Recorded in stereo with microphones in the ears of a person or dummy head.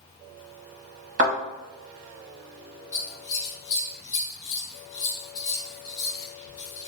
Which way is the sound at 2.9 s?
25° left (ahead or behind).